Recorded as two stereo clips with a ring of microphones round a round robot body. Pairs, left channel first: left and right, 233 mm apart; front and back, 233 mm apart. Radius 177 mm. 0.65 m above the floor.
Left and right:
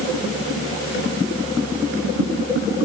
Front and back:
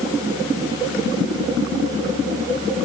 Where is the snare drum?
No snare drum in this recording.